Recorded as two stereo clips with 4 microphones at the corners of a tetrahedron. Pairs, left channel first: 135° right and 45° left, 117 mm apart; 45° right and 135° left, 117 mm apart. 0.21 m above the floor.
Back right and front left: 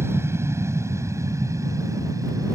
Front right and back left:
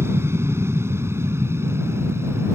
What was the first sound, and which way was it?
An aircraft, 90° left.